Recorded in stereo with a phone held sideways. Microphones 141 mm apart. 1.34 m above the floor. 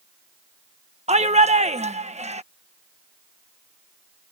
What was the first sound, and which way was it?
A shout, 50° right (ahead or behind).